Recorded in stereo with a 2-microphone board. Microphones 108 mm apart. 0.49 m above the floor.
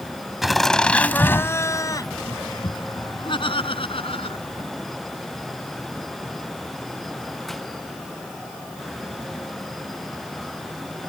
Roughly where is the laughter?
Centre.